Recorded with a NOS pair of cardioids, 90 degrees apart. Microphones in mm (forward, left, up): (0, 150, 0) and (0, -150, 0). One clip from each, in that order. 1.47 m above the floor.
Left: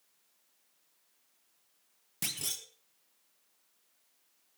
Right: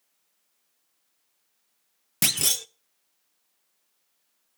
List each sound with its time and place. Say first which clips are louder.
2.2 s a clunk: right 13 dB; 65° right, 0.6 m